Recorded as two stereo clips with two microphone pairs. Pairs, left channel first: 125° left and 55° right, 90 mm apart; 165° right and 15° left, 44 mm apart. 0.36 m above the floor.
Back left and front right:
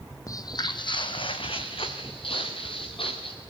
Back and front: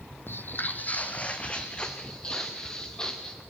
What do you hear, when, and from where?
0.3 s footsteps: 165° left, 0.6 m; by 3.4 s 115° left, 2 m